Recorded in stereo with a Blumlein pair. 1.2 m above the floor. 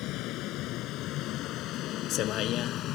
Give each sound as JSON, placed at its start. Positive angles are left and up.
{"t": 0.0, "sound": "a vehicle", "azimuth_deg": 40}